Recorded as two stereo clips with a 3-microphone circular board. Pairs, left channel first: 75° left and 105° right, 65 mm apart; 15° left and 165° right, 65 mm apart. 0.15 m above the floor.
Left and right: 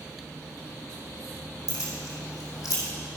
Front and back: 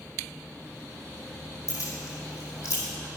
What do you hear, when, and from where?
1.7 s keys jangling: 60° left, 3.5 m